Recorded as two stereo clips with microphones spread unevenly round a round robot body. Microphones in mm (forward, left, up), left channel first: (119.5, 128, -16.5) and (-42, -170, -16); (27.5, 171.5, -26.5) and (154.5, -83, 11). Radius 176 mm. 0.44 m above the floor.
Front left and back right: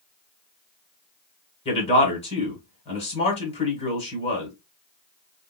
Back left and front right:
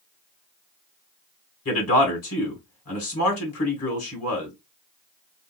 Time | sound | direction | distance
1.6 | a man speaking | 130° left | 1.9 m